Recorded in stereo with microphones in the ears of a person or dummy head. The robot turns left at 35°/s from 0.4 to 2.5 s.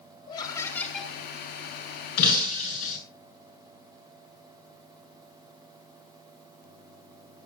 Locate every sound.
0.3 s laughter: 20° left (ahead or behind), 6.5 m; by 1.1 s 5° right (ahead or behind), 6.5 m
2.2 s breaking glass: 50° left (ahead or behind), 8.5 m; by 3.0 s 40° left (ahead or behind), 8.5 m